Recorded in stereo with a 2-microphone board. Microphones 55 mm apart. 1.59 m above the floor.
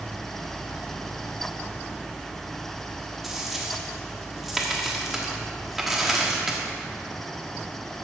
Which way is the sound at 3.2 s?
5° right (ahead or behind).